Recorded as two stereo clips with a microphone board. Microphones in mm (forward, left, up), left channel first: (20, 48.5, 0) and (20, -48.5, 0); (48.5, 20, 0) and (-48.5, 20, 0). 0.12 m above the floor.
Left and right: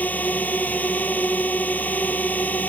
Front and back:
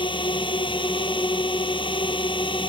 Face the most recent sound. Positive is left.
turn(degrees=20)